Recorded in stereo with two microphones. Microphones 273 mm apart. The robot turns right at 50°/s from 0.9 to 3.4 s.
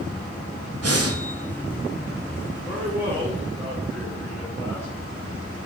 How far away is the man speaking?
About 2.5 m.